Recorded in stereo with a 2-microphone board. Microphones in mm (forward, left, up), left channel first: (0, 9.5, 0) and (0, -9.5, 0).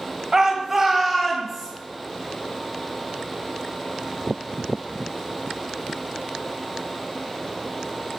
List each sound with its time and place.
0.3 s a shout: 35° right (ahead or behind), 1.0 m; by 1.7 s centre (ahead or behind), 1.8 m